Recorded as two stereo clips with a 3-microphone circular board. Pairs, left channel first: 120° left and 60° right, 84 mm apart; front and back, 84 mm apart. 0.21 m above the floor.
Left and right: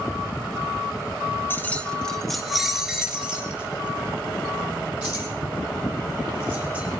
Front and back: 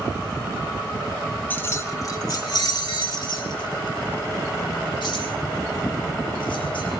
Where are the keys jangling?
60° left, 1.1 m; by 6.9 s 10° left, 6 m.